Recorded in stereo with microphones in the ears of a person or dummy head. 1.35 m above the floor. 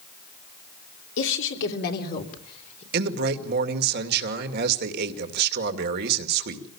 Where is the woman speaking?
80° left, 3 m; by 2.8 s 45° left (ahead or behind), 4 m.